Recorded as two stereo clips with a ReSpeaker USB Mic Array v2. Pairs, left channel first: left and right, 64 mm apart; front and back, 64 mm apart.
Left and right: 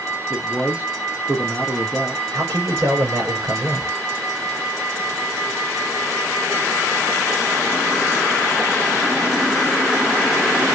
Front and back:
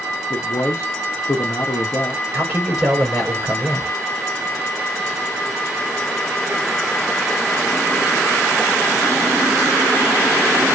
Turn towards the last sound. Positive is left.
turn(degrees=-110)